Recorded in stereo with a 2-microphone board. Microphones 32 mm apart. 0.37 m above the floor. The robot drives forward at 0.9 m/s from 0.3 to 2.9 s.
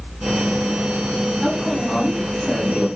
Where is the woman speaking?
Centre (ahead or behind), 2.5 m.